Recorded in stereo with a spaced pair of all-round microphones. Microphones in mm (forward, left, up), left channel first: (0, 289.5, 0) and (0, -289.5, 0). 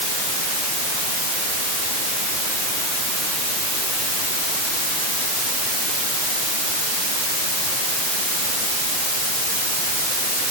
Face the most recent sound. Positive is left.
No sound to turn to.